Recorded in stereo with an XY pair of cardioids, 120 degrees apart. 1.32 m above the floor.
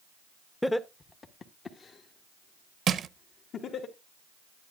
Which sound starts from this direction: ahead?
Laughter, at 0.6 s.